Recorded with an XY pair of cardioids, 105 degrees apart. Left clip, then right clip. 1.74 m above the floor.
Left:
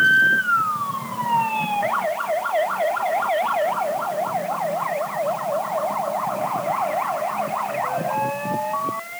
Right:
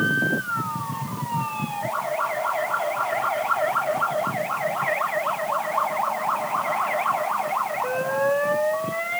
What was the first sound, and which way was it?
Only background noise.